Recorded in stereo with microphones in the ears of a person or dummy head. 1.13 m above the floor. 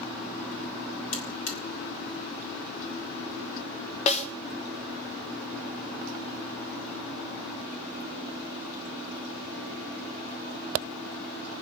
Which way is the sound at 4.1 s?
40° left (ahead or behind).